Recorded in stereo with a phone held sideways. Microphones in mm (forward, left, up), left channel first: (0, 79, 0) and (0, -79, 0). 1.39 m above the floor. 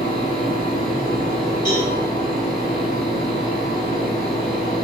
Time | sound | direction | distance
0.0 | a fan | 60° right (ahead or behind) | 1.4 m
1.6 | a cowbell | 30° left (ahead or behind) | 1.7 m